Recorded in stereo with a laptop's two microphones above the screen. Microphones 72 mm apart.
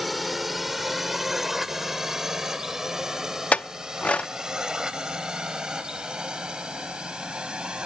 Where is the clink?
20° left (ahead or behind).